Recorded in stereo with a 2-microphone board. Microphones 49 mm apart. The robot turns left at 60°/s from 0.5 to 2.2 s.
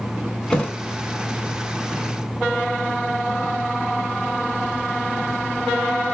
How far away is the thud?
About 0.8 m.